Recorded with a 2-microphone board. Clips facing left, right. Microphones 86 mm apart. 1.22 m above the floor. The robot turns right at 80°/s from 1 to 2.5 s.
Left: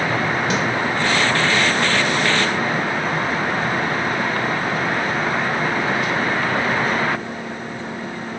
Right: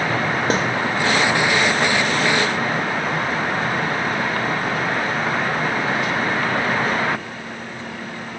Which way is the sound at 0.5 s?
40° right (ahead or behind).